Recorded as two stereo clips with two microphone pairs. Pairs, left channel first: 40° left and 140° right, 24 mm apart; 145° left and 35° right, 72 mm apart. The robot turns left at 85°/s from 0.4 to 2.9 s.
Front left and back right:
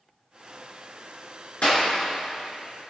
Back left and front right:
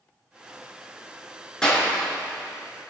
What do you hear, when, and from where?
1.6 s a clap: 65° left, 4.5 m; by 1.9 s 45° left, 4.5 m